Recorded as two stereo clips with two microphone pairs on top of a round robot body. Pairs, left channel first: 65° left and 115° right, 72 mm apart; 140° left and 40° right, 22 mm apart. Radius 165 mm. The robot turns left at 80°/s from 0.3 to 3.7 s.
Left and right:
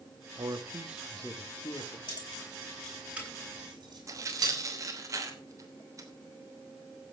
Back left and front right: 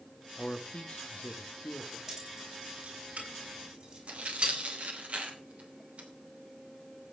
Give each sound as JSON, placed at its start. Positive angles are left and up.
{"t": 0.4, "sound": "a man speaking", "azimuth_deg": -150, "distance_m": 1.7}
{"t": 2.1, "sound": "keys jangling", "azimuth_deg": 40, "distance_m": 6.0}
{"t": 4.1, "sound": "tearing paper", "azimuth_deg": -70, "distance_m": 3.0}